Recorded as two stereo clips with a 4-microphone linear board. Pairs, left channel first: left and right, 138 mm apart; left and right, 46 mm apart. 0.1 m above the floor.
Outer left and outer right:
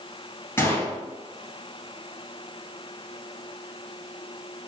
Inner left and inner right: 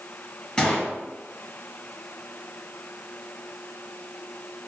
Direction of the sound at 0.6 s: 15° left (ahead or behind).